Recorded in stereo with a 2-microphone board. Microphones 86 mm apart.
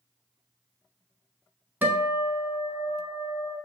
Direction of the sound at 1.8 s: 20° right (ahead or behind).